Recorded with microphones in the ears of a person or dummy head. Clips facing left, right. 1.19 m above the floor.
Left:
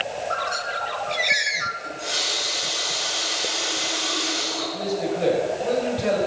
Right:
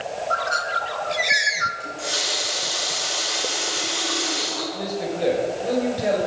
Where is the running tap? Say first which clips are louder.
Right 1 dB; 45° right (ahead or behind), 6.5 m.